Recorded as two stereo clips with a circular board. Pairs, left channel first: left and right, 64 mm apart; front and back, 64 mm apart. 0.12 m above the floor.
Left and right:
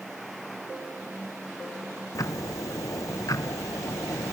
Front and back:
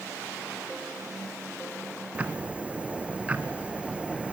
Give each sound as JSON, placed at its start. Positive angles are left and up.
{"t": 2.1, "sound": "ticking", "azimuth_deg": 110, "distance_m": 1.0}